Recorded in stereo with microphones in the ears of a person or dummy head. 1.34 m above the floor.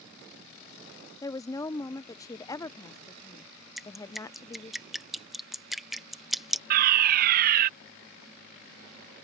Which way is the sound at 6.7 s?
55° right (ahead or behind).